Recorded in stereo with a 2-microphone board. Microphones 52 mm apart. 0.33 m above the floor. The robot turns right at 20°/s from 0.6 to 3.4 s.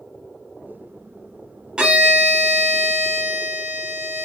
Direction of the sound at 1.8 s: 160° right.